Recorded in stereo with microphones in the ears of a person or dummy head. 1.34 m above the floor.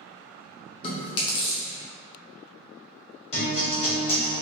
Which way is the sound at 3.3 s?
30° left (ahead or behind).